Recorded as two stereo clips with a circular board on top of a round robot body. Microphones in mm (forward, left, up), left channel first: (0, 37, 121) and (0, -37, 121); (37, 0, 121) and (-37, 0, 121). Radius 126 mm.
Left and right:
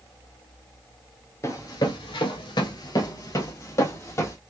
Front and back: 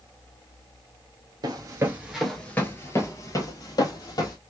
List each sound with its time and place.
1.4 s running footsteps: 145° left, 0.7 m; by 4.4 s 30° left, 1.6 m